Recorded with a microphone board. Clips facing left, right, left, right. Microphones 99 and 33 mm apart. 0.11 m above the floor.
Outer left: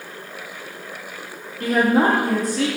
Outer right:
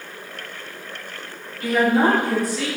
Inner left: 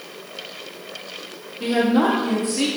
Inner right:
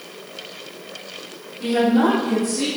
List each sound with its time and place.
1.6 s a woman speaking: 35° left (ahead or behind), 1.8 m; by 2.7 s 45° left (ahead or behind), 2.5 m